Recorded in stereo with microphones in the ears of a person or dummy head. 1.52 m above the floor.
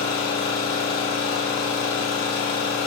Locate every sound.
0.0 s an engine running: 55° left (ahead or behind), 1.9 m